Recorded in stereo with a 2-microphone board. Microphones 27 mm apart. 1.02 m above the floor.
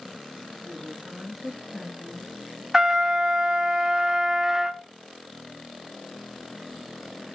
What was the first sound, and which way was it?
A woman speaking, 10° right (ahead or behind).